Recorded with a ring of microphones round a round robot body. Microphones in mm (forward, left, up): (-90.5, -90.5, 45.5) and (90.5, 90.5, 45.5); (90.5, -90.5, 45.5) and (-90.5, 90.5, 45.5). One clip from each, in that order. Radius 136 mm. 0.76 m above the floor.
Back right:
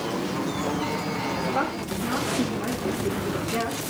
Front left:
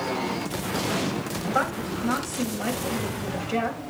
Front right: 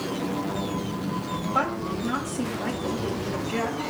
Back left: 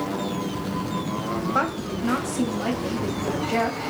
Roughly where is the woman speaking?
Left.